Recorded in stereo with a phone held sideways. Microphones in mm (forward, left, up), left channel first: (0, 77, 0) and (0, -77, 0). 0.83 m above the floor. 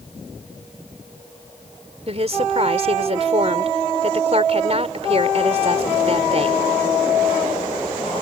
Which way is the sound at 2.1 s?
45° right (ahead or behind).